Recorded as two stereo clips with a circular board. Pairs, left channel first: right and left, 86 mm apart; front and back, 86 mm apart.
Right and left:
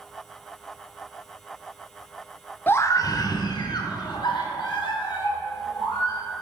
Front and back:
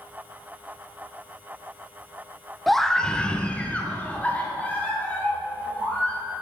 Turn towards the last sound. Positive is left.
turn(degrees=-70)